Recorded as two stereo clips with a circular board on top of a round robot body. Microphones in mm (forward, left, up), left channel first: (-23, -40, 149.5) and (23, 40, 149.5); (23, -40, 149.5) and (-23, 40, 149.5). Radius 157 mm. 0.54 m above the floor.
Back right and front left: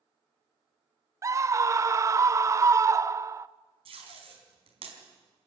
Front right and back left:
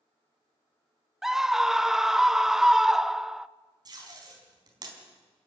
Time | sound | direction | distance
1.2 | a scream | 35° left | 0.7 m
3.9 | tape being pulled | 75° left | 4.5 m